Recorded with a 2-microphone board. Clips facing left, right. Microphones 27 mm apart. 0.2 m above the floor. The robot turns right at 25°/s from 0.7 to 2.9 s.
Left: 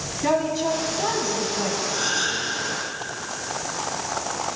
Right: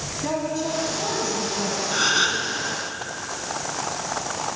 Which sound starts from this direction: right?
A gasp, at 1.9 s.